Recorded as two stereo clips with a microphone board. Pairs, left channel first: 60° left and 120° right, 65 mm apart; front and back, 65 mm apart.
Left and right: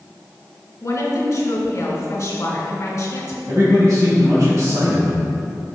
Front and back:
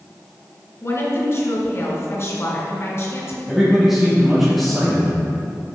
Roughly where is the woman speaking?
Ahead left.